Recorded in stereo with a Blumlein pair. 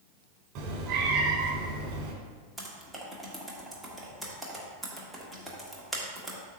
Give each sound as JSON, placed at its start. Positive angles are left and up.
{"t": 0.6, "sound": "a cat meowing", "azimuth_deg": -35, "distance_m": 1.6}
{"t": 2.6, "sound": "typing on a keyboard", "azimuth_deg": 0, "distance_m": 1.5}